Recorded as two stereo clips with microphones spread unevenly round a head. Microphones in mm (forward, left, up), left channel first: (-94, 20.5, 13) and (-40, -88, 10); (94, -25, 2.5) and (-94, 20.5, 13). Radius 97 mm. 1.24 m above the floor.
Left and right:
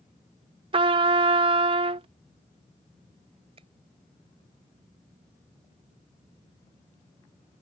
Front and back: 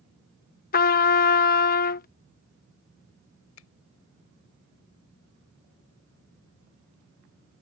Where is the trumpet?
30° right.